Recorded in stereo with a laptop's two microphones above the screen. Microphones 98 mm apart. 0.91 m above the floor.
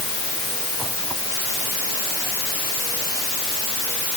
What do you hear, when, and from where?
Only background noise.